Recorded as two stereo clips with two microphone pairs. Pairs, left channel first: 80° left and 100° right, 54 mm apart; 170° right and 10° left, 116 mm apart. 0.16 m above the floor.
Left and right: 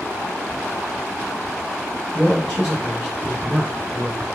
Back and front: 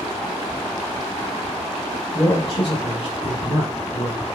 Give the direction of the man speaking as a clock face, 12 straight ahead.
6 o'clock.